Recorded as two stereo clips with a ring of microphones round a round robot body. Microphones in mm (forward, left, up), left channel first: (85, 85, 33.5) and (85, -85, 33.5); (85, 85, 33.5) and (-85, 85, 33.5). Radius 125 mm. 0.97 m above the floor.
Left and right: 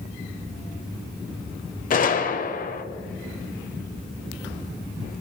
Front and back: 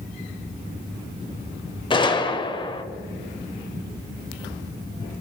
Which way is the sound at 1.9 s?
60° left.